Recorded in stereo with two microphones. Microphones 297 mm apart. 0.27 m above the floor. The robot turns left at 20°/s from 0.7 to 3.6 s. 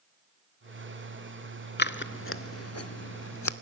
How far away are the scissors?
About 0.5 m.